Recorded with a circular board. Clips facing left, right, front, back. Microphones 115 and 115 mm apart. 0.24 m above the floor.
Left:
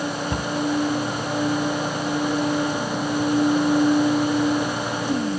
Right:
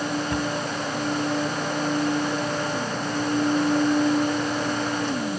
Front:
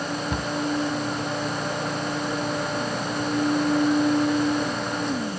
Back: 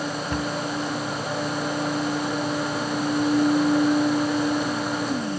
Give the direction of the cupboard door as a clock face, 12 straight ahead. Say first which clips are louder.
Right 1 dB, back 2 dB; 10 o'clock.